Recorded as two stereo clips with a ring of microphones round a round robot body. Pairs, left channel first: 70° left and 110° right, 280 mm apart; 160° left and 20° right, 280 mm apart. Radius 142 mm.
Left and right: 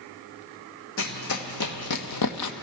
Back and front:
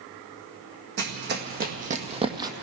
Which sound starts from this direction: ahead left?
Running footsteps, at 1.0 s.